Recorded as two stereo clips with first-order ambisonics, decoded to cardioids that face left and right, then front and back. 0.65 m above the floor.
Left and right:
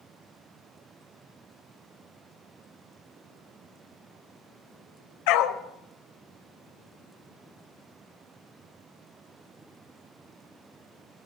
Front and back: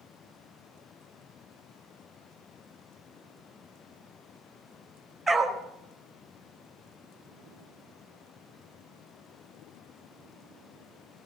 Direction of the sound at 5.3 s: 100° left.